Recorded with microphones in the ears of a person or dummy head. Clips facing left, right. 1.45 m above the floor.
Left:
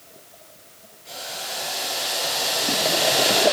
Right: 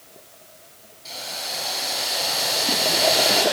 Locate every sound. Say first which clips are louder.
1.1 s boiling: even; 50° right (ahead or behind), 6 m